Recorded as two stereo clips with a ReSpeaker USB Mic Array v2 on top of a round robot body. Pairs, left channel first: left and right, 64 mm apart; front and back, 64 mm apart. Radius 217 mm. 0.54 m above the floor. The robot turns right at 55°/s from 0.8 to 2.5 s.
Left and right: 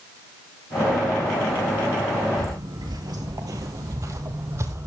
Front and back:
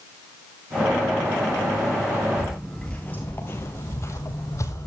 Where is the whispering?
No whispering in this recording.